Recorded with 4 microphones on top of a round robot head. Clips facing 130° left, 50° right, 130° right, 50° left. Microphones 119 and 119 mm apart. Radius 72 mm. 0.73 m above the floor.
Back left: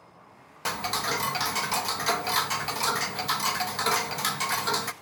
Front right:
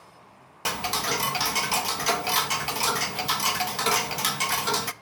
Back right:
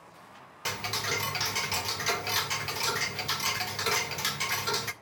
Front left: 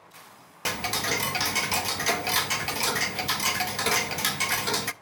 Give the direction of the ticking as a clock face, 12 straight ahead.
11 o'clock.